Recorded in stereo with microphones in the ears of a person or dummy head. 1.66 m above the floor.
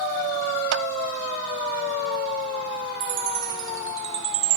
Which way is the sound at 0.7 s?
85° right.